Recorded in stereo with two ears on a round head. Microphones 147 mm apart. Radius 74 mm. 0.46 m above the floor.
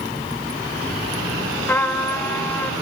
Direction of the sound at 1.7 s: 10° left (ahead or behind).